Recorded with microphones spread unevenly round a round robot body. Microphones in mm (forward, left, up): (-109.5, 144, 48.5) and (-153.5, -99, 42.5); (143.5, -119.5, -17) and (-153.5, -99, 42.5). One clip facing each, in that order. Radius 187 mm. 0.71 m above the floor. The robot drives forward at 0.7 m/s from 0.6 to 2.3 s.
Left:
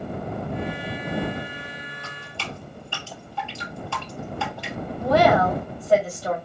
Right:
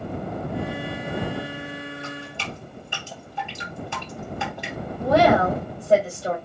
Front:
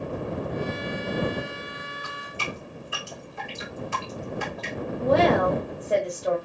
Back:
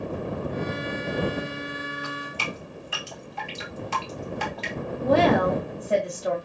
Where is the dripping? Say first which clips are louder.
Right 3 dB, back 3 dB; 175° right, 3 m.